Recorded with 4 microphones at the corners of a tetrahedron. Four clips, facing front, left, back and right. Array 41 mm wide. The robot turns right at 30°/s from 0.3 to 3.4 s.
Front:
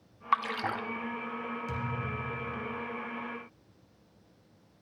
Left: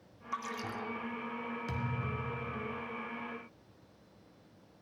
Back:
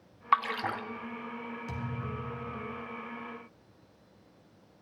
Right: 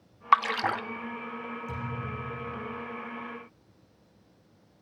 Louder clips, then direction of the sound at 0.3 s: Right 15 dB, back 2 dB; 100° right.